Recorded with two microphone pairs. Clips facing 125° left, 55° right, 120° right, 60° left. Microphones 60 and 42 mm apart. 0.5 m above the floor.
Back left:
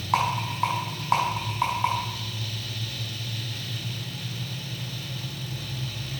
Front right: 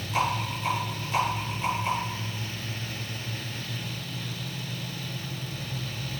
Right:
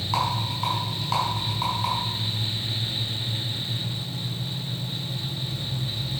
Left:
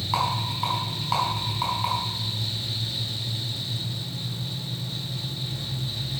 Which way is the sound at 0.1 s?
140° left.